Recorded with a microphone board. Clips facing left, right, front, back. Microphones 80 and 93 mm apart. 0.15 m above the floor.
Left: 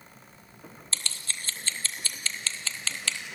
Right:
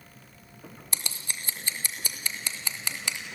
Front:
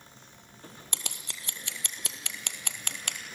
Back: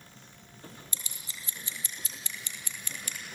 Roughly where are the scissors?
Ahead.